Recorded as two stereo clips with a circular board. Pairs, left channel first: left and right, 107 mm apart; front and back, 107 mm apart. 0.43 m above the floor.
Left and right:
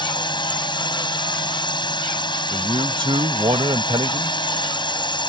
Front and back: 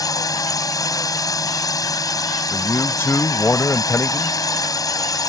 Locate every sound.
0.0 s a drone: 50° left
2.5 s a man speaking: 65° right